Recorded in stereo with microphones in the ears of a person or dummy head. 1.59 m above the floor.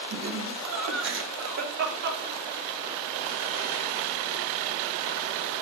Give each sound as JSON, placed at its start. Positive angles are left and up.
{"t": 0.1, "sound": "laughter", "side_deg": -80, "distance_m": 6.0}